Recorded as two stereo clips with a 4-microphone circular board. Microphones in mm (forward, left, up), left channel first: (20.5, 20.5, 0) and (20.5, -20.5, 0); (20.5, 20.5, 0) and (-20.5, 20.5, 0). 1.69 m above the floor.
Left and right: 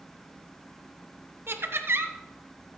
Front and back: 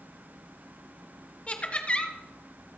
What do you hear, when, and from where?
1.5 s laughter: 60° right, 1.4 m